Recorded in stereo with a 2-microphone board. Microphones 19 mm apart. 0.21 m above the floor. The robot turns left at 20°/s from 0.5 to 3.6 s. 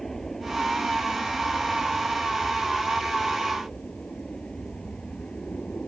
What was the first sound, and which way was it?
An aircraft, 155° left.